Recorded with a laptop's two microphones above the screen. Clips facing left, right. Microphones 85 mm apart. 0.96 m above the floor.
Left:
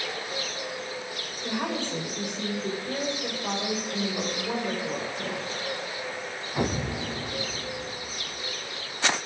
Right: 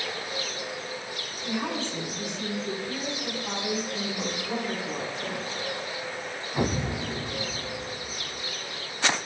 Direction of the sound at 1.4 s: 55° left (ahead or behind).